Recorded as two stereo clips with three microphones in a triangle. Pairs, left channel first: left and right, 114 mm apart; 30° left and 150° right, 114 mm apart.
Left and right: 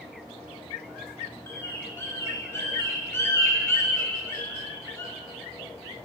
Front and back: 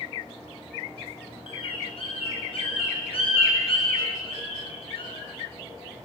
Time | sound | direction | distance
1.5 | a bird | 30° left | 0.7 m